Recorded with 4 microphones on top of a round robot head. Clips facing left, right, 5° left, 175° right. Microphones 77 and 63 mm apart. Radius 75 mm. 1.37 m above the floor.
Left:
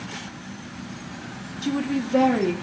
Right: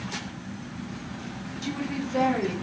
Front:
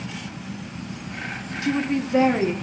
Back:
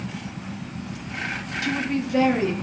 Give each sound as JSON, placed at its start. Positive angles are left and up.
{"t": 1.6, "sound": "a woman speaking", "azimuth_deg": 65, "distance_m": 0.6}